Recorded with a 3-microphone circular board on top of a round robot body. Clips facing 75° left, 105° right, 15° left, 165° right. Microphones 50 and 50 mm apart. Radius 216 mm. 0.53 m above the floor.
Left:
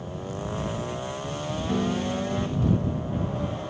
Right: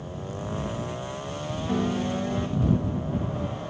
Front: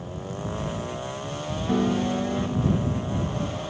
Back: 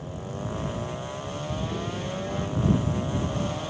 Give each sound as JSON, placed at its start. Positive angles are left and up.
{"t": 1.7, "sound": "a piano", "azimuth_deg": -25}